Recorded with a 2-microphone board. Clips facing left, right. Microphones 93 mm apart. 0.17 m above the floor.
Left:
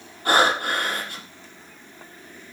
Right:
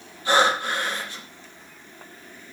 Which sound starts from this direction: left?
Breathing, at 0.2 s.